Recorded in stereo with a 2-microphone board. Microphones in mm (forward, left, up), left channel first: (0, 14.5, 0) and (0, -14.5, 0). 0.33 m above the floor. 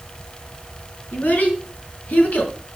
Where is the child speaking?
75° left (ahead or behind), 4.5 m; by 2.5 s 55° left (ahead or behind), 3 m.